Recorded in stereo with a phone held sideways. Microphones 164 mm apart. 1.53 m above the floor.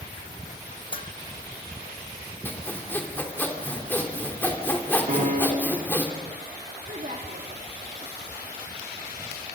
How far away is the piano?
About 4 m.